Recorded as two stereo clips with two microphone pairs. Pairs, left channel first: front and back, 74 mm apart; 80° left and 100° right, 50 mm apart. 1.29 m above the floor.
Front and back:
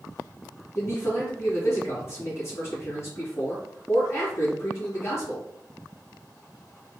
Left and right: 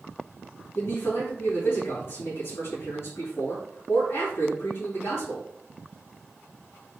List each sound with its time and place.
0.8 s a man speaking: 45° left, 2 m